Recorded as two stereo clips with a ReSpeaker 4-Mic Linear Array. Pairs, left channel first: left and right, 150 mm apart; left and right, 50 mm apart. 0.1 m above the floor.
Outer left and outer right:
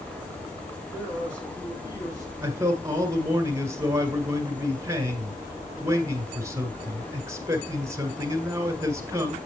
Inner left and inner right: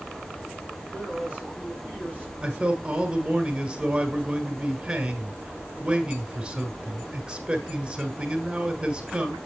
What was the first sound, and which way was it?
A man speaking, 35° left (ahead or behind).